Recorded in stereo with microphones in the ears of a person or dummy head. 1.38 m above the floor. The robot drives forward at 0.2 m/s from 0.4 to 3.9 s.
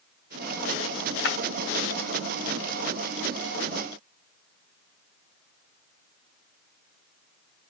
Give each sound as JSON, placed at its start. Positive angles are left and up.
{"t": 1.2, "sound": "breaking glass", "side_deg": 75, "distance_m": 3.5}